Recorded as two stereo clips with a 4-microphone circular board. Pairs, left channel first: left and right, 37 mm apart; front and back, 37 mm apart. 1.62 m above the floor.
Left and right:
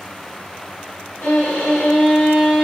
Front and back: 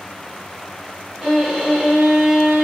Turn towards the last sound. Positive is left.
turn(degrees=95)